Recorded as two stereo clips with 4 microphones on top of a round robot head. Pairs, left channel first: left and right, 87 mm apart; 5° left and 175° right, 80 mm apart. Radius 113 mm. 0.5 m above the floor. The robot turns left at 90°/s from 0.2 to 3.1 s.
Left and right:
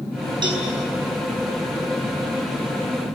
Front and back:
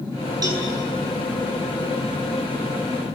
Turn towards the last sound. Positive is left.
turn(degrees=-10)